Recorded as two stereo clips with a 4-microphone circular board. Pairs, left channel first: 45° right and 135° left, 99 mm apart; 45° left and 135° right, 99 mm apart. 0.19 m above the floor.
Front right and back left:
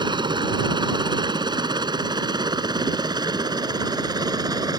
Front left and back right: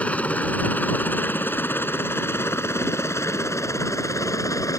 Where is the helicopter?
115° left; by 4.8 s 95° left.